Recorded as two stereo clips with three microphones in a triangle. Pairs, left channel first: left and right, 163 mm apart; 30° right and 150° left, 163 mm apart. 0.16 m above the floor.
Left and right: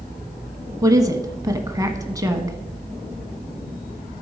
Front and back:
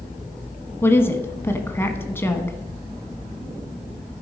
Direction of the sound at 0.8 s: 80° right.